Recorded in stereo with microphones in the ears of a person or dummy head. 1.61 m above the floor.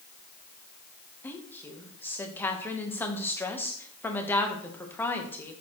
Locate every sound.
1.2 s a woman speaking: 15° left (ahead or behind), 1.1 m